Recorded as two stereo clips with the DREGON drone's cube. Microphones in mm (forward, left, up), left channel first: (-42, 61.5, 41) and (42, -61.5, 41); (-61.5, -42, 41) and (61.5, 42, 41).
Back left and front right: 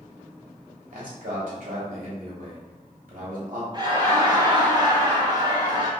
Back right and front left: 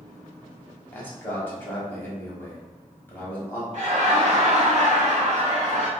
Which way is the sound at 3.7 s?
Straight ahead.